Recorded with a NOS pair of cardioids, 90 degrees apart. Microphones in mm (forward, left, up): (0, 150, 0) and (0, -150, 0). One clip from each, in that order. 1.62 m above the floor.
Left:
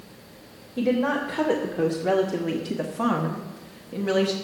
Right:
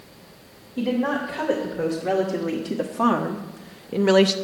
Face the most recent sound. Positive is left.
turn(degrees=-50)